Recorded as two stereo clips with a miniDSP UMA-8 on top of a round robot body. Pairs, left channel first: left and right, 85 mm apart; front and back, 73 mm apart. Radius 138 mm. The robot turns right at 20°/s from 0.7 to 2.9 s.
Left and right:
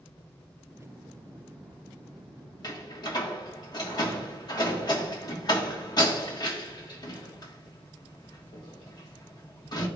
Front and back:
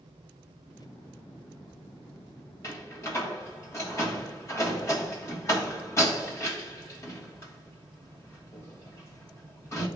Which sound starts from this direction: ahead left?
A door slam, at 2.6 s.